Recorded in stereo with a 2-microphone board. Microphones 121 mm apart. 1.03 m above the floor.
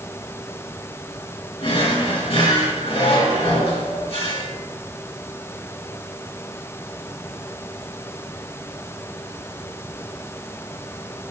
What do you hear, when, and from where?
1.6 s a drawer: 55° left (ahead or behind), 3.5 m